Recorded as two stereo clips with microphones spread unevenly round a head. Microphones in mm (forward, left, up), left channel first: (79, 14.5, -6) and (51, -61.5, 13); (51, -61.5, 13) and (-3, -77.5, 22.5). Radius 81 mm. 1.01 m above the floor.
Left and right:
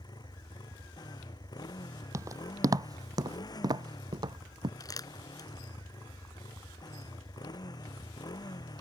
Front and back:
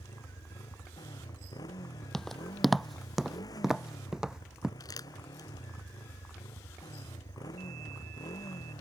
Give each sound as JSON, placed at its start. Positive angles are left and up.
{"t": 0.0, "sound": "a motorcycle", "azimuth_deg": 35}
{"t": 2.1, "sound": "footsteps", "azimuth_deg": -70}
{"t": 4.8, "sound": "crumpling", "azimuth_deg": 25}